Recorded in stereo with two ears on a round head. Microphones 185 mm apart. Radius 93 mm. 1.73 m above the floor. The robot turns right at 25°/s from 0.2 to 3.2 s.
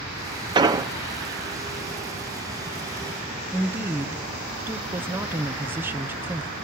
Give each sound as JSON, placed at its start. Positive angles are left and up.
{"t": 0.6, "sound": "an explosion", "side_deg": -20, "distance_m": 0.6}
{"t": 3.5, "sound": "a woman speaking", "side_deg": -10, "distance_m": 1.0}